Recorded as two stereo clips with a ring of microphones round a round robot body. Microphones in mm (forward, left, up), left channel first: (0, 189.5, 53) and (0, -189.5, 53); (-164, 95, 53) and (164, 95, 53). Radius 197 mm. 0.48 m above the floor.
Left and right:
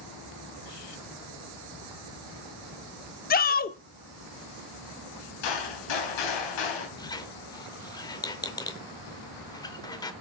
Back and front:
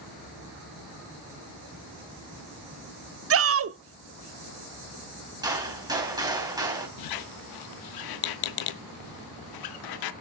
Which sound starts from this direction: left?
A gunshot, at 5.4 s.